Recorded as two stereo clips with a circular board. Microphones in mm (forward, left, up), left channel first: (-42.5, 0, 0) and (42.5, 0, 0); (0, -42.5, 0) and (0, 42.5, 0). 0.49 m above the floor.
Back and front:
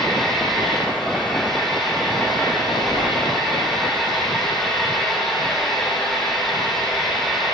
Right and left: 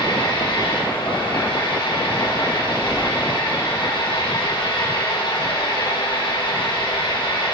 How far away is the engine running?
About 7 m.